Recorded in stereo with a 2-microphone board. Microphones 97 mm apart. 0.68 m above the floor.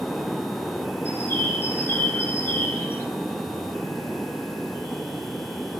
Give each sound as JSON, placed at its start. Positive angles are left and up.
{"t": 1.1, "sound": "a bird", "side_deg": 25, "distance_m": 9.0}